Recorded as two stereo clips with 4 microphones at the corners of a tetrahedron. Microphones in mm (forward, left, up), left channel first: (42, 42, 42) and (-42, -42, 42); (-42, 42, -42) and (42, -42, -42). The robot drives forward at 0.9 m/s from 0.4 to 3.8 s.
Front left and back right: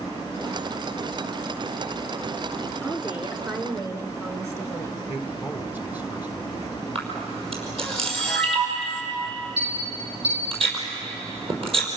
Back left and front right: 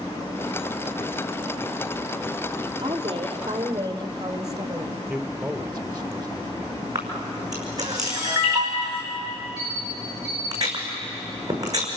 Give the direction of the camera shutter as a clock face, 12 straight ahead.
3 o'clock.